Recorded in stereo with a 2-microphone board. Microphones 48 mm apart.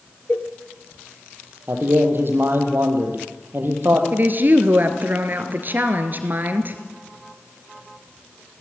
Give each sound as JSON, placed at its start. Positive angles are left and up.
{"t": 0.3, "sound": "a cowbell", "side_deg": 40, "distance_m": 2.0}
{"t": 1.7, "sound": "a man speaking", "side_deg": -50, "distance_m": 4.5}
{"t": 4.1, "sound": "a woman speaking", "side_deg": -40, "distance_m": 2.5}